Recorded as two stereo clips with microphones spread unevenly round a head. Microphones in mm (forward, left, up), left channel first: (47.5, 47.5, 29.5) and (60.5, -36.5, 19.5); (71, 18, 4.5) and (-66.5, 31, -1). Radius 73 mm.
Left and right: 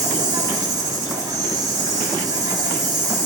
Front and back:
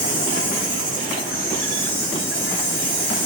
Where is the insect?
35° right, 5.5 m.